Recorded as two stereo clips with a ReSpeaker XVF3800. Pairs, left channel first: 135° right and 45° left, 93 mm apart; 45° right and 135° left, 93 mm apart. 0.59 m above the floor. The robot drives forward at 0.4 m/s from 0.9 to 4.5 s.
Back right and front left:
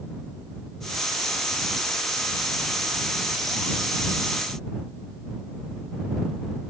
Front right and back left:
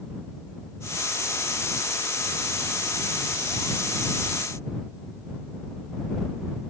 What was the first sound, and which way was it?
Only background noise.